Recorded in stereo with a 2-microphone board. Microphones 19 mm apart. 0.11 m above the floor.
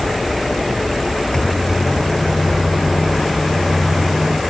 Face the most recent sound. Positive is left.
turn(degrees=45)  # may be behind; listen again after turning